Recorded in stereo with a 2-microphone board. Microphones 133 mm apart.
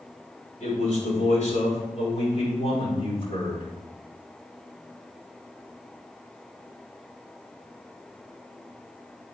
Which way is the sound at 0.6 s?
65° left (ahead or behind).